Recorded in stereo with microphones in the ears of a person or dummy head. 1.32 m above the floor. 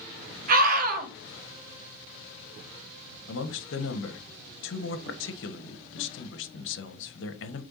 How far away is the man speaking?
About 1.2 m.